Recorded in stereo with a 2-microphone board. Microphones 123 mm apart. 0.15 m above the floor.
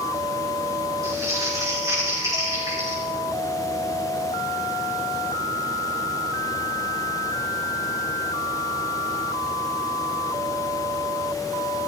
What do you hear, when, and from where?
1.0 s crumpling: 25° right (ahead or behind), 5 m